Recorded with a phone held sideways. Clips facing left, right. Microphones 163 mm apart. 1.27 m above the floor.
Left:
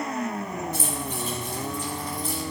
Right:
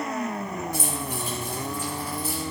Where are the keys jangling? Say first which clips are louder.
Even; 15° right (ahead or behind), 4.5 m; by 2.4 s 5° right (ahead or behind), 3.5 m.